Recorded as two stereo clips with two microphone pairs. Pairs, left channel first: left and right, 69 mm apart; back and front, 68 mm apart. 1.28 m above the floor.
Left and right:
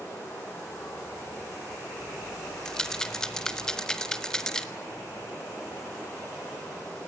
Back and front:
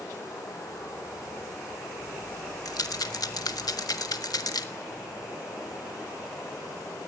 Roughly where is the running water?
Behind left.